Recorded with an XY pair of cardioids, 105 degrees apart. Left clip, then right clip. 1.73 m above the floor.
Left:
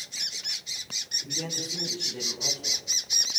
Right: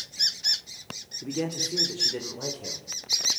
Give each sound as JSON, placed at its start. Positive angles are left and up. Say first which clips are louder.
{"t": 1.2, "sound": "a man speaking", "louder": "right 1 dB", "azimuth_deg": -65, "distance_m": 5.0}